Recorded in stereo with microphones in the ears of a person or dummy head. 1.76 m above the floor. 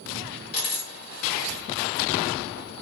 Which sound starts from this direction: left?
A dropped coin, at 0.5 s.